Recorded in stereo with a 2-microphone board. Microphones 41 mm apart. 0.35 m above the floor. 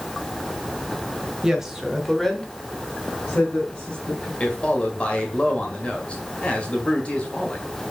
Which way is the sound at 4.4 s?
30° left (ahead or behind).